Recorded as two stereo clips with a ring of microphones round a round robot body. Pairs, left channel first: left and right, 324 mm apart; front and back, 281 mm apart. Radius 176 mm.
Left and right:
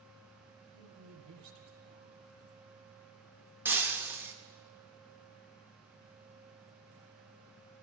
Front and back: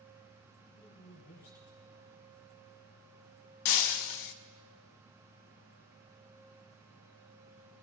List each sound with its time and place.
0.7 s a woman speaking: 60° right, 3.5 m
3.6 s breaking glass: 5° right, 0.6 m